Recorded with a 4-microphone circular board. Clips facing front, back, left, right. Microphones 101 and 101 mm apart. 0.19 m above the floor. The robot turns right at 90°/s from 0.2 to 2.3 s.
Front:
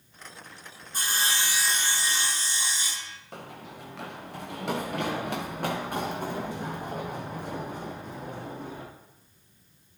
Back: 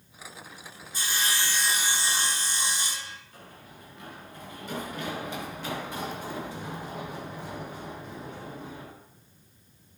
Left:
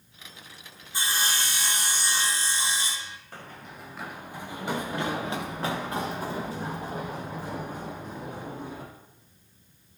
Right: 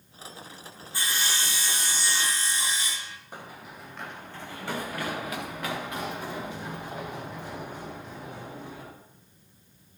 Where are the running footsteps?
15° right, 2 m; by 8.8 s 45° left, 8.5 m.